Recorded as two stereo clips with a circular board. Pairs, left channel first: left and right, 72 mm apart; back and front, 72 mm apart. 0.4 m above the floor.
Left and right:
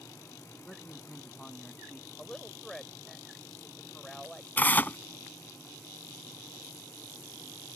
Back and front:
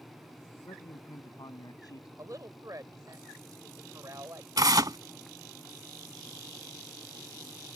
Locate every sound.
0.6 s a man speaking: 165° left
2.2 s a woman speaking: 10° left
4.6 s tearing paper: 25° left